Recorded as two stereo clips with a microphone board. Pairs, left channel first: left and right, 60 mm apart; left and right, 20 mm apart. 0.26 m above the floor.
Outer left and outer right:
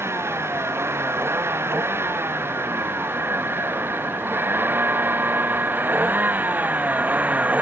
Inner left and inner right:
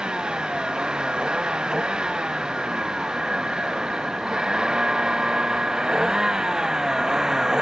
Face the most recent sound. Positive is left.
turn(degrees=-30)  # may be behind; listen again after turning